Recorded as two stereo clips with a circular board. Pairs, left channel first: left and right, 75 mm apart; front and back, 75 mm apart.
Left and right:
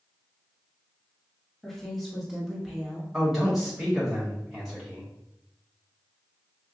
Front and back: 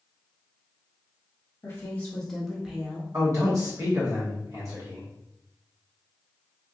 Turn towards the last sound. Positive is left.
turn(degrees=-175)